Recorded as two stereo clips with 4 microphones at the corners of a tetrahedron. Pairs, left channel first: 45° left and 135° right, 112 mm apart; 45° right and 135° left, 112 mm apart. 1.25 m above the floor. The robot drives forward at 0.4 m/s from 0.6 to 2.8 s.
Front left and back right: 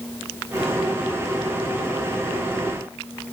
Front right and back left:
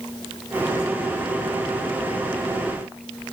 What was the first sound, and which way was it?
Only background noise.